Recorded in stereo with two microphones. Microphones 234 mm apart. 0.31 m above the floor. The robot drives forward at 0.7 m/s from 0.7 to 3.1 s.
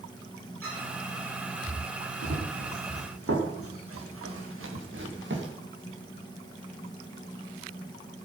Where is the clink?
65° right (ahead or behind), 7.5 m.